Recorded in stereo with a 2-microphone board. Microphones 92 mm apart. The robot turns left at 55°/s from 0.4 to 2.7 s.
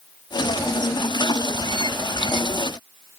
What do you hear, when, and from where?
Only background noise.